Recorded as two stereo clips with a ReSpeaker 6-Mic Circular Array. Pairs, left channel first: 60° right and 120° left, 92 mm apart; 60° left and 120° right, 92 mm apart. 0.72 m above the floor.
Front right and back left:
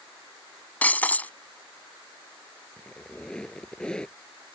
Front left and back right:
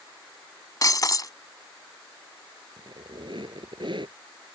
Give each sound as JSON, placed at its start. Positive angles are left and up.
{"t": 0.8, "sound": "breaking glass", "azimuth_deg": 10}
{"t": 2.8, "sound": "a squeak", "azimuth_deg": -140}